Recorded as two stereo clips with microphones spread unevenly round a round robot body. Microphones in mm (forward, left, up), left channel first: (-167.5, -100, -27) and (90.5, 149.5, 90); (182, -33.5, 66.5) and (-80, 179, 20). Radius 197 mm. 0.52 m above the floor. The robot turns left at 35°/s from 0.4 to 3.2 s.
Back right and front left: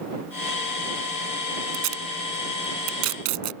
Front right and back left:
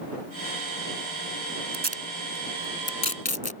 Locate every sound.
1.7 s tape being pulled: 80° left; by 3.5 s 30° left